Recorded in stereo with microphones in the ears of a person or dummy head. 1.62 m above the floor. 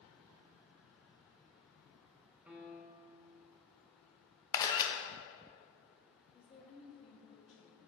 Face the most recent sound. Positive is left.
turn(degrees=40)  # may be behind; listen again after turning